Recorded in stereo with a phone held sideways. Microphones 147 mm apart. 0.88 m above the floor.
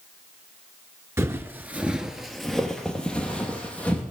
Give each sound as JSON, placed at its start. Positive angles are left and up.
{"t": 1.2, "sound": "footsteps", "side_deg": -20, "distance_m": 0.8}